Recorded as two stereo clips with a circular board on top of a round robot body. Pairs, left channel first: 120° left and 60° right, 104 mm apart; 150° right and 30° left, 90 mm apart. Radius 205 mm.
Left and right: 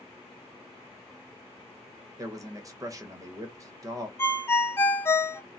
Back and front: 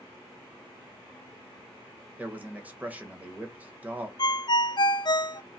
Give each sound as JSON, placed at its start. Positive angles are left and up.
{"t": 2.2, "sound": "a man speaking", "azimuth_deg": -35, "distance_m": 1.2}
{"t": 4.2, "sound": "a ringtone", "azimuth_deg": -175, "distance_m": 0.6}